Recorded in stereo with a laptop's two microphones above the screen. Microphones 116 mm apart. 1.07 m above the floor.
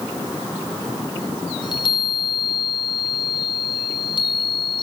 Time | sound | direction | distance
1.6 | a chime | 45° left (ahead or behind) | 2 m